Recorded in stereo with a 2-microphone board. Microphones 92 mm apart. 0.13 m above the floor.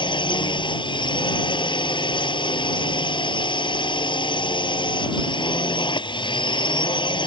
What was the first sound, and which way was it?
A drone, 60° left (ahead or behind).